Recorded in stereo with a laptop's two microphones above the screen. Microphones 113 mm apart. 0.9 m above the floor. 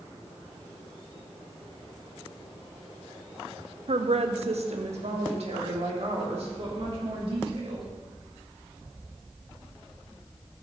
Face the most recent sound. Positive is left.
turn(degrees=-60)  # may be behind; listen again after turning